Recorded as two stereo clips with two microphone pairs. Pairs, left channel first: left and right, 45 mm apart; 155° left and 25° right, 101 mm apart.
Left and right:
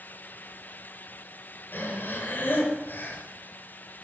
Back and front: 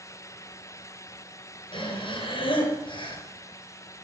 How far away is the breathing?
About 3.5 m.